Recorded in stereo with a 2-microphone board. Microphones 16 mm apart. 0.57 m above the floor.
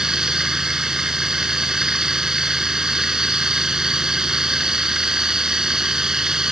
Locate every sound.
0.0 s running water: 35° right (ahead or behind)